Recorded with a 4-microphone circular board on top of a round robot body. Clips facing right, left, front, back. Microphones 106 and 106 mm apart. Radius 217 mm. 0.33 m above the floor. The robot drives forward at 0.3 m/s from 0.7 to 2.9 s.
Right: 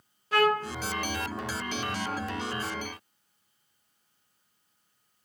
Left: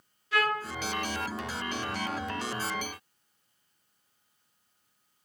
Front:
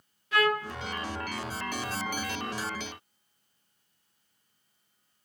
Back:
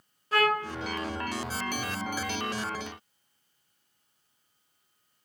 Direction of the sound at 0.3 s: 130° right.